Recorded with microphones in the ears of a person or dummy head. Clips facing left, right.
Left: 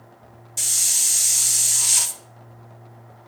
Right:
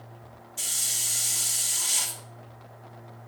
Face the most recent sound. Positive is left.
turn(degrees=75)  # may be behind; listen again after turning